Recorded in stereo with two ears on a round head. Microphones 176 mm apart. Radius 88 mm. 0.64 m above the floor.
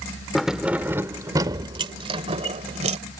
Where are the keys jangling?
Centre (ahead or behind); by 3.0 s 40° right (ahead or behind).